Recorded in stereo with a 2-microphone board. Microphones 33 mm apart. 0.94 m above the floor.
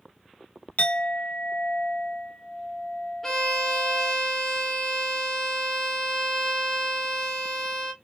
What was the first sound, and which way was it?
A clink, 55° left (ahead or behind).